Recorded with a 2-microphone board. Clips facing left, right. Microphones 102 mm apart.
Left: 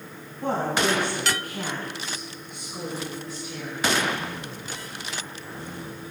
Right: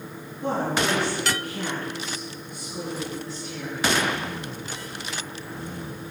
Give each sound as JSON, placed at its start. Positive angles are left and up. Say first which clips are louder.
{"t": 0.4, "sound": "a woman speaking", "louder": "even", "side_deg": 60, "distance_m": 3.0}